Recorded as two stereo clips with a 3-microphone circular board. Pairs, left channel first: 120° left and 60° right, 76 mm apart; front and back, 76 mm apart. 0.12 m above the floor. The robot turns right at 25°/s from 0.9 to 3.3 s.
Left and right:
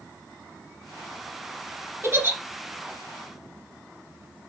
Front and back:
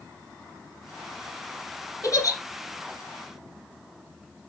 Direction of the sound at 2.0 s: 10° right.